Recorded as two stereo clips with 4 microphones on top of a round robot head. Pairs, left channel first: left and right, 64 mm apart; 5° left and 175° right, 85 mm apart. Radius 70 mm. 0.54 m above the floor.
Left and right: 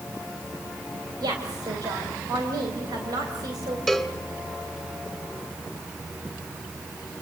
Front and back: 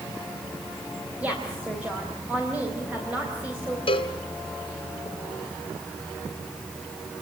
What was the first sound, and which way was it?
A woman speaking, 105° right.